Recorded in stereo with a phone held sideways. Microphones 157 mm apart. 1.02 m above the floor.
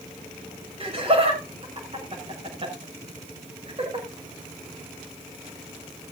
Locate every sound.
0.8 s laughter: 40° right (ahead or behind), 6 m